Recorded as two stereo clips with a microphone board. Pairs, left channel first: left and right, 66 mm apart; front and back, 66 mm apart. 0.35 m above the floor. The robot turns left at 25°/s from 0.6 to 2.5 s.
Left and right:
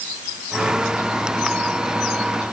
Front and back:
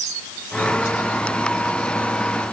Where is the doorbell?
No doorbell in this recording.